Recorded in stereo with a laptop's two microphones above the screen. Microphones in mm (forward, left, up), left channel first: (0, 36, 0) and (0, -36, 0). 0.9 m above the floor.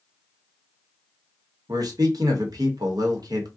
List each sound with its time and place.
1.7 s a man speaking: 60° right (ahead or behind), 0.9 m